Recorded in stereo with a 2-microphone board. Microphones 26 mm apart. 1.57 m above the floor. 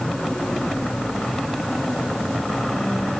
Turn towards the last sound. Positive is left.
No sound to turn to.